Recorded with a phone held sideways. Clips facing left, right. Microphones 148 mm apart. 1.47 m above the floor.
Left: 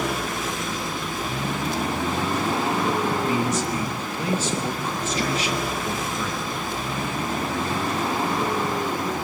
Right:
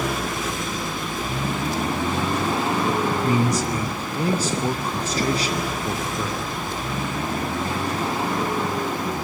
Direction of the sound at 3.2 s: 35° right (ahead or behind).